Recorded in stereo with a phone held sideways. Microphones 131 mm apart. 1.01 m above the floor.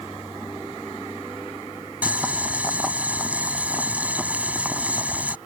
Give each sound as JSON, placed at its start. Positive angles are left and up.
{"t": 2.0, "sound": "boiling", "side_deg": -10}